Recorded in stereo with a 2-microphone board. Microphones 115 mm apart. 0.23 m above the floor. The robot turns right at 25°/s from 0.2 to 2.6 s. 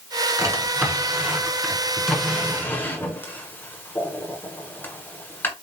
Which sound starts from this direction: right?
A drawer, at 0.4 s.